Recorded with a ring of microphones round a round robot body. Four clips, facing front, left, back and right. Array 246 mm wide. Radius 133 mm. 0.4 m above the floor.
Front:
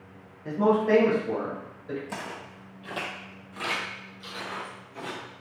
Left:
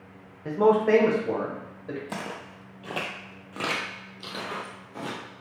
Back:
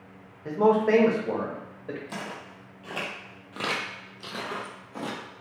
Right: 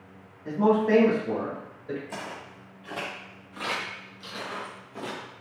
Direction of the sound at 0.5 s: 115° left.